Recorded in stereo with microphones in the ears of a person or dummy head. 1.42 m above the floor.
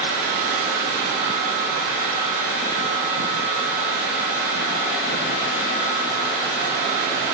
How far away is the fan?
About 4.5 m.